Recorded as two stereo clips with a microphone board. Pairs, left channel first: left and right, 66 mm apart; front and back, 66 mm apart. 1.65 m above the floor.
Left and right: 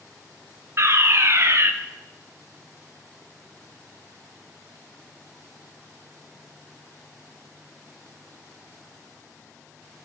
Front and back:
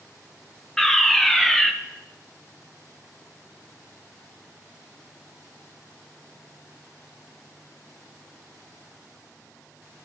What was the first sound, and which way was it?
A fire alarm, 80° right.